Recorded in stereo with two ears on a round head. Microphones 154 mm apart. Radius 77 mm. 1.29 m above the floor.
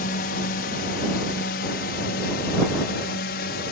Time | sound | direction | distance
0.0 | a drone | 60° left (ahead or behind) | ?